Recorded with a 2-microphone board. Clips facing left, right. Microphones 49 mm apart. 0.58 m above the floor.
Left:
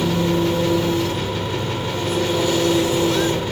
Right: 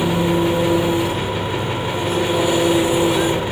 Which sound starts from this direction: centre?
An engine running, at 0.0 s.